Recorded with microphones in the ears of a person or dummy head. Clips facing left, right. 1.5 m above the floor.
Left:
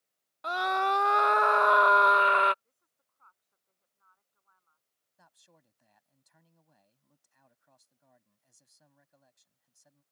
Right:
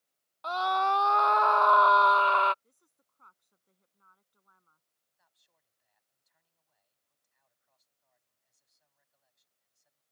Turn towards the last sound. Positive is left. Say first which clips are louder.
# left 14 dB
turn(degrees=70)  # may be behind; listen again after turning